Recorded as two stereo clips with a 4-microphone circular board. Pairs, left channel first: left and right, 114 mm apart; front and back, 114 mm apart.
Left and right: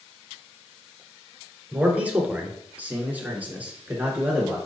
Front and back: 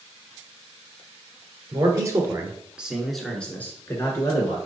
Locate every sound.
1.7 s a man speaking: 160° right, 1.4 m; by 4.6 s 20° right, 1.4 m